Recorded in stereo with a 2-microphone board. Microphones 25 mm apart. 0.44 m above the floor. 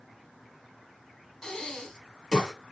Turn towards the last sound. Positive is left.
turn(degrees=20)  # may be behind; listen again after turning